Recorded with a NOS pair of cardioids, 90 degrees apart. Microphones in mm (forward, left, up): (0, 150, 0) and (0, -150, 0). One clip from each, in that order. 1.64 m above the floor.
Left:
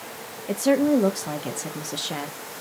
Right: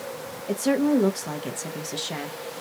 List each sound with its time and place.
0.5 s a woman speaking: 10° left, 0.7 m